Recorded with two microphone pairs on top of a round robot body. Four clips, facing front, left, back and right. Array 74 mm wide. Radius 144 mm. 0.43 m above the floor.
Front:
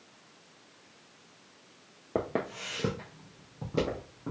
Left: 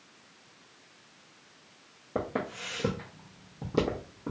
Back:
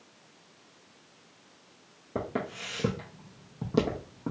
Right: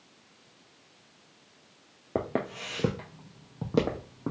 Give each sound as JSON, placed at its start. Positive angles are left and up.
{"t": 2.1, "sound": "footsteps", "azimuth_deg": -55, "distance_m": 0.6}